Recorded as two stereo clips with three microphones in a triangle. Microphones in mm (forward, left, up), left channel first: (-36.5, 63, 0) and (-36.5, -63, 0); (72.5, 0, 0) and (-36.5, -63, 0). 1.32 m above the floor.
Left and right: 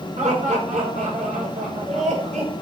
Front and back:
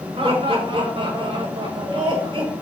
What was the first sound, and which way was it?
Laughter, 110° right.